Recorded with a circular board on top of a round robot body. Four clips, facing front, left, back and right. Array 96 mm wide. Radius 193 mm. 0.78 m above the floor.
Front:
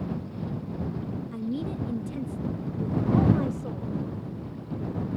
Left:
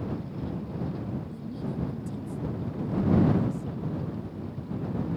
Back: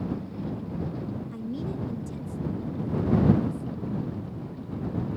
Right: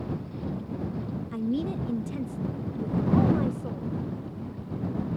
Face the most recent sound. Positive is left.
turn(degrees=-40)